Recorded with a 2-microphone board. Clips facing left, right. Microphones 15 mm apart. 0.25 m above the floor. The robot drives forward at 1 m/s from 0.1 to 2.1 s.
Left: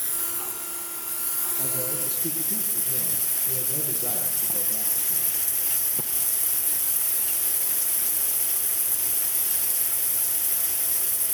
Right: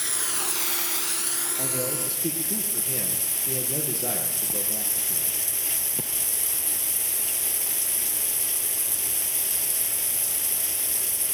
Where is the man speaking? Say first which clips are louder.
Right 2 dB; 75° right (ahead or behind), 5 m.